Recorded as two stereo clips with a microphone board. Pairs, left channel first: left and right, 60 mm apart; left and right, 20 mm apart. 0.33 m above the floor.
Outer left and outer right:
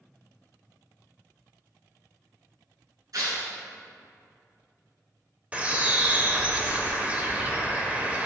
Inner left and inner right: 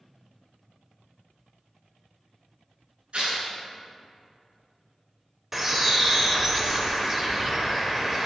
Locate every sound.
3.1 s tearing paper: 75° right (ahead or behind), 3 m
5.5 s a bird: 25° right (ahead or behind), 1.2 m